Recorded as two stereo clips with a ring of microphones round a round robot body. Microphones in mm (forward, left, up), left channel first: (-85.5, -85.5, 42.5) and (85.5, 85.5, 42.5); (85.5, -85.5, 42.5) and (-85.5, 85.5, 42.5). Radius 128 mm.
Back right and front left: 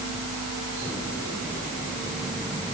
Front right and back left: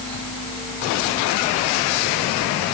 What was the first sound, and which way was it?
Only background noise.